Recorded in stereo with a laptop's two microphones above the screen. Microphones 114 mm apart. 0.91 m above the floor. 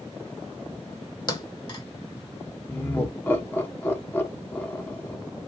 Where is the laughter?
20° left (ahead or behind), 1.8 m.